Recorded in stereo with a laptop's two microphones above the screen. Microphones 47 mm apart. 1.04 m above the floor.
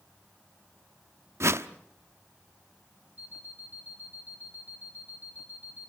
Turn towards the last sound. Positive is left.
turn(degrees=-30)  # may be behind; listen again after turning